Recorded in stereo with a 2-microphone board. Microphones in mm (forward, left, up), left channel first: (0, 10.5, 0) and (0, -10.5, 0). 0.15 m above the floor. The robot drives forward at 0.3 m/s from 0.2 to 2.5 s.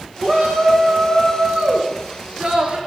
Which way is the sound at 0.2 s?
40° right (ahead or behind).